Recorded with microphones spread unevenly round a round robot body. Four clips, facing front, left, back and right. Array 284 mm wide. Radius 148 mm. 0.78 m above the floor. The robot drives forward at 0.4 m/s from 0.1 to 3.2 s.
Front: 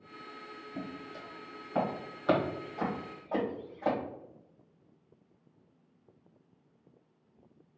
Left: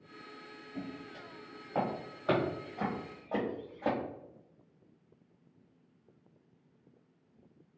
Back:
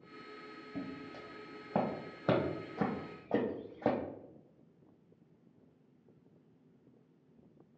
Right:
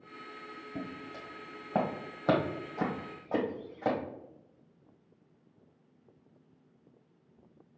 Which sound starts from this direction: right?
Footsteps, at 0.8 s.